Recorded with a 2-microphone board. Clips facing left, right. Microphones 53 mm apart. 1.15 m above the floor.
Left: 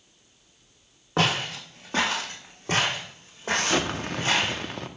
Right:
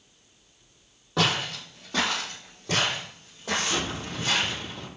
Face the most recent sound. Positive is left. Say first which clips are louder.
# left 3 dB
turn(degrees=60)  # may be behind; listen again after turning